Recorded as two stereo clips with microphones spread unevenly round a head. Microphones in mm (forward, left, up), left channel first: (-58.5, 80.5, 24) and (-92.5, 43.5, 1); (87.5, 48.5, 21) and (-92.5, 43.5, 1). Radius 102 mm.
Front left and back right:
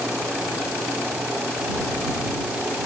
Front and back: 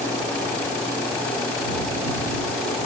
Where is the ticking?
I don't hear ticking.